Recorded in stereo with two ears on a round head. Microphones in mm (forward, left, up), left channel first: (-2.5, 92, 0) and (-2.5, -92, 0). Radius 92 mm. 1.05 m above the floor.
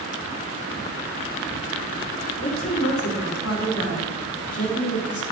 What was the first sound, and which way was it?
A woman speaking, 80° left.